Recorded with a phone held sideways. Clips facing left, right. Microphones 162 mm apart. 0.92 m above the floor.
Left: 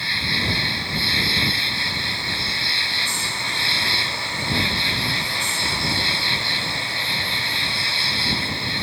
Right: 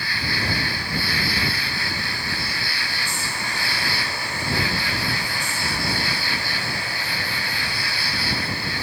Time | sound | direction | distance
0.0 | an insect | 25° left (ahead or behind) | ?